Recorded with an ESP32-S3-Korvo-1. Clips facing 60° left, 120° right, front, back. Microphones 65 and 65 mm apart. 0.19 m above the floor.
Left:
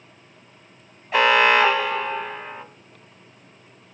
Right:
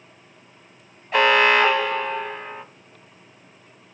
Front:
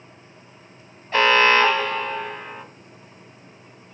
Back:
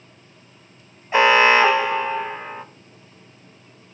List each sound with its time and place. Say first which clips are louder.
1.1 s an alarm: even, back 2 dB; 145° left, 1.4 m